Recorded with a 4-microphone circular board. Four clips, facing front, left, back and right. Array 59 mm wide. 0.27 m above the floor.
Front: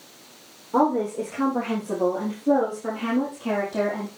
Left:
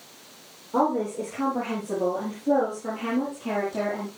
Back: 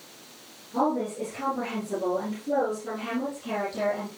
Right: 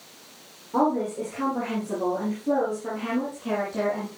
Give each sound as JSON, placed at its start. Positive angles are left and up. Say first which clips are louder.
{"t": 0.7, "sound": "a woman speaking", "louder": "even, front 5 dB", "azimuth_deg": -10, "distance_m": 9.5}